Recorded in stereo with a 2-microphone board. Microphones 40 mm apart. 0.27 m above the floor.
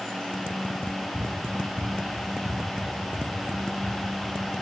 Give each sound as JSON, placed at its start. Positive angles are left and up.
{"t": 0.8, "sound": "running footsteps", "side_deg": -75, "distance_m": 1.8}